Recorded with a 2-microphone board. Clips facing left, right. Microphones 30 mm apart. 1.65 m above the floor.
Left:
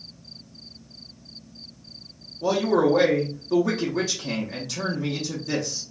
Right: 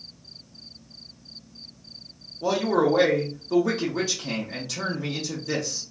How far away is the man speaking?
About 0.6 m.